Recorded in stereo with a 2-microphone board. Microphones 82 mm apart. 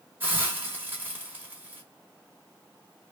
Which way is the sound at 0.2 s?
25° right (ahead or behind).